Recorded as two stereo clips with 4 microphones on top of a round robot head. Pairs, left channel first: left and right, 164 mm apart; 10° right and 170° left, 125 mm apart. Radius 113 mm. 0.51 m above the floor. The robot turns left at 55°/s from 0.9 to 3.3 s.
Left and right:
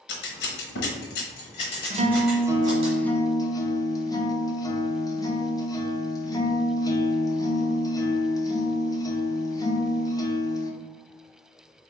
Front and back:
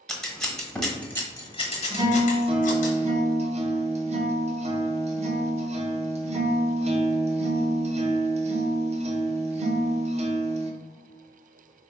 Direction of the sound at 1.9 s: 125° right.